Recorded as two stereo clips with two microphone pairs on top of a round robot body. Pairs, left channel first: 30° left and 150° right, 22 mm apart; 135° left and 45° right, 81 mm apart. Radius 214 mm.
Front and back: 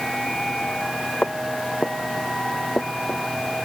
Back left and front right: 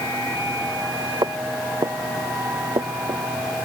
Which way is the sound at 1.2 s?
5° right.